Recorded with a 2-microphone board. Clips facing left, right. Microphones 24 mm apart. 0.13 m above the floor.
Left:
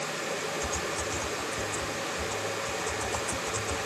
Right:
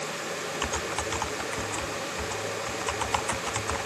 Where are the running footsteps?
I don't hear running footsteps.